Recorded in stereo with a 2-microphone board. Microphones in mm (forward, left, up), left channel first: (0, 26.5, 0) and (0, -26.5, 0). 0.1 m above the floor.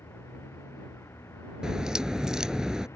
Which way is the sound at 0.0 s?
60° left (ahead or behind).